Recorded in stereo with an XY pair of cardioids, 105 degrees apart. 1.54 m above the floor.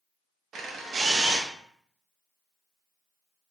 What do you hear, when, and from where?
0.5 s a camera shutter: 55° right, 0.5 m